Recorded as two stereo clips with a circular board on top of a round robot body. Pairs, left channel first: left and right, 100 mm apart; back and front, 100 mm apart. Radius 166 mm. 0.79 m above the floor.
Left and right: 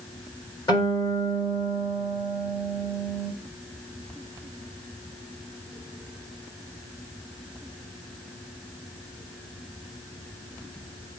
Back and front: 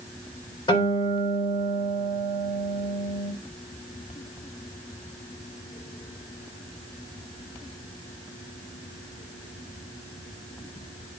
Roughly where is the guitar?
Behind left.